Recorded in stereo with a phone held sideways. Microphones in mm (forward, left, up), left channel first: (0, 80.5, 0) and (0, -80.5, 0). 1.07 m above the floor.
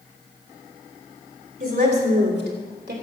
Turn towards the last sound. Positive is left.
turn(degrees=-75)  # may be behind; listen again after turning